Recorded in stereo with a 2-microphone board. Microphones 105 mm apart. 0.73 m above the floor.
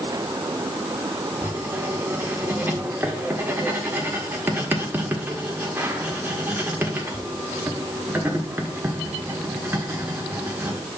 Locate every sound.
1.4 s writing: 20° right (ahead or behind), 1.6 m